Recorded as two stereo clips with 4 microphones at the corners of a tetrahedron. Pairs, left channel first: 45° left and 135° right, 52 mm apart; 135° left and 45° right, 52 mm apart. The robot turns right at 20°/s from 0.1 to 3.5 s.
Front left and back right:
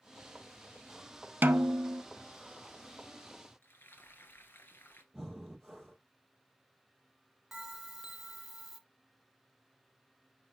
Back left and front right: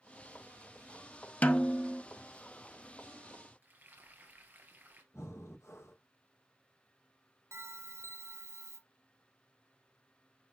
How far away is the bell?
About 1.8 m.